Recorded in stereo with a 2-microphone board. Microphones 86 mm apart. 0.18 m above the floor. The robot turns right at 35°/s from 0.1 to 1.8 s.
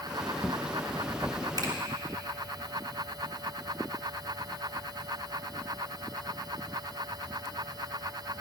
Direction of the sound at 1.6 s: 50° right (ahead or behind).